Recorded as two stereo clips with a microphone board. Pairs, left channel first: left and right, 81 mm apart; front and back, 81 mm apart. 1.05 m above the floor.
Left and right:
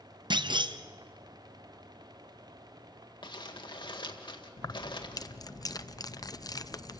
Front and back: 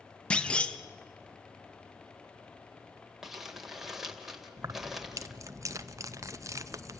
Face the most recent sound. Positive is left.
turn(degrees=130)